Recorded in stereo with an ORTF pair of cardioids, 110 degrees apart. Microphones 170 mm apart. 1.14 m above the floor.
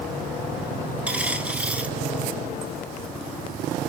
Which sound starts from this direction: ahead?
A dropped coin, at 1.1 s.